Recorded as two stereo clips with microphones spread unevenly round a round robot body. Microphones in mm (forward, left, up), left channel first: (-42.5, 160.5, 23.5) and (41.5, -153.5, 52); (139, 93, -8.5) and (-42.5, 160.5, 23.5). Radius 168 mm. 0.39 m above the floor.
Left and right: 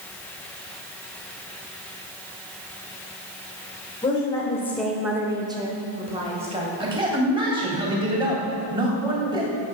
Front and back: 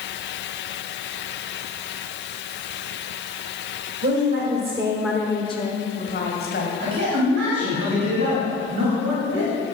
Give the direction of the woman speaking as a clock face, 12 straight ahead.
6 o'clock.